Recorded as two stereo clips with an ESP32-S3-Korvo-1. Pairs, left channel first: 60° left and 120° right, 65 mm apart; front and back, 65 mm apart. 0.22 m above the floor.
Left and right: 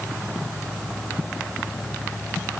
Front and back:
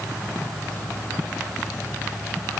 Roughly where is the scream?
I don't hear a scream.